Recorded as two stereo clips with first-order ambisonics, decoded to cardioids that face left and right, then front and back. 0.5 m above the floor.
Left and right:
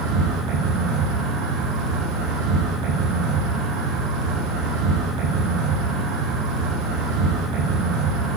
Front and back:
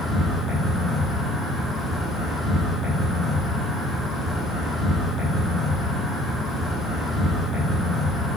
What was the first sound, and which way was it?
An insect, 95° right.